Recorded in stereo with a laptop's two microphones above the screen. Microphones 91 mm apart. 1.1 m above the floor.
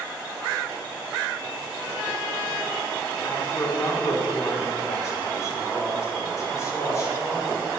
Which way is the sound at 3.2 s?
35° left (ahead or behind).